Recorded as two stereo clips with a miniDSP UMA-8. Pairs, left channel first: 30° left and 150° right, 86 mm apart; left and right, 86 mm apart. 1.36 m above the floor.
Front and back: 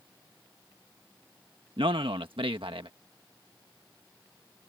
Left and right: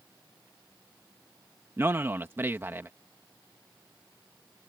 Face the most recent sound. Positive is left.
turn(degrees=-150)